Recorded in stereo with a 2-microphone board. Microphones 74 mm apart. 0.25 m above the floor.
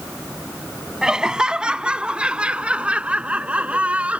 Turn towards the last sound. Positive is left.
turn(degrees=-15)  # may be behind; listen again after turning